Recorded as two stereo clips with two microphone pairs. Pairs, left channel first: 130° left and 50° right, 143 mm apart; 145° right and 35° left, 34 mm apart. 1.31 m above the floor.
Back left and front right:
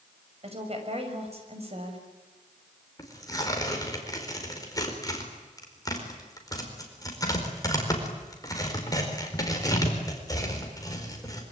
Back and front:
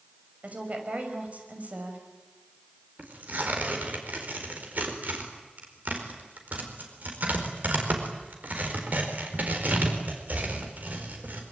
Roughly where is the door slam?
I don't hear a door slam.